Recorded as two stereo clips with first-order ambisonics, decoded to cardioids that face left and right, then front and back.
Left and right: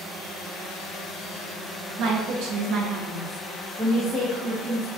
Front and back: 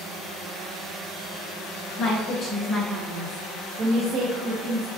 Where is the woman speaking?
60° right, 0.8 m; by 4.9 s 155° left, 1.0 m.